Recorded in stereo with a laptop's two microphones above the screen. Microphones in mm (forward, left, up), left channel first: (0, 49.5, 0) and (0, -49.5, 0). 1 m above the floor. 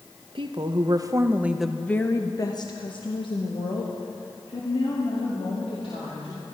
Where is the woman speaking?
55° right (ahead or behind), 0.9 m; by 6.4 s 75° left (ahead or behind), 3 m.